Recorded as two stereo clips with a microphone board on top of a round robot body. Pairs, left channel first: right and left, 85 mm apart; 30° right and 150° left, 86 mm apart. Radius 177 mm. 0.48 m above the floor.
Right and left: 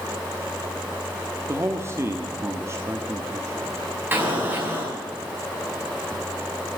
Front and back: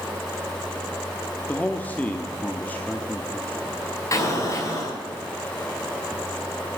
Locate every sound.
1.5 s a man speaking: 40° left, 1.1 m
4.1 s an explosion: 25° left, 5.5 m